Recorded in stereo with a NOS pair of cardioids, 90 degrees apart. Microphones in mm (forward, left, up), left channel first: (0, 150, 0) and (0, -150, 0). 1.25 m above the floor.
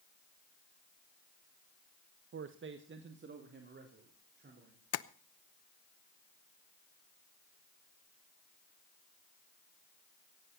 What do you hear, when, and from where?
2.3 s a man speaking: 45° right, 1.0 m; by 4.8 s 35° right, 4.5 m
4.9 s tapping: 55° left, 0.9 m